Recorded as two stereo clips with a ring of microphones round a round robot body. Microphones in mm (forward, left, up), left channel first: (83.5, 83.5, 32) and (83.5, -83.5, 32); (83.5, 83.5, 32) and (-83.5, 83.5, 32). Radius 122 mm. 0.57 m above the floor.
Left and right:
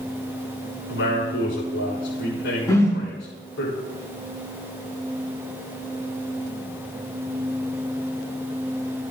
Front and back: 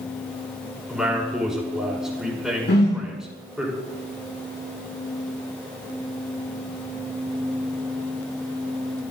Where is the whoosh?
20° left, 5 m.